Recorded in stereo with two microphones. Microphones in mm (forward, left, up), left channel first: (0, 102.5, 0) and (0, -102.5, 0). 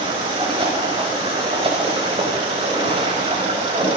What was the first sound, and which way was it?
Running water, 25° right (ahead or behind).